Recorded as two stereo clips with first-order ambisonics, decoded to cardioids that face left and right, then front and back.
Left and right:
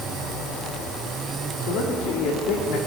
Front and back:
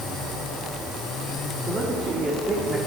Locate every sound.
1.6 s a man speaking: 110° left, 1.7 m